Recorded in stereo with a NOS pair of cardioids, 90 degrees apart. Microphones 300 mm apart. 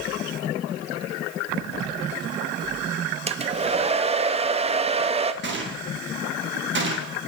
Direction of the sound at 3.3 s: 20° right.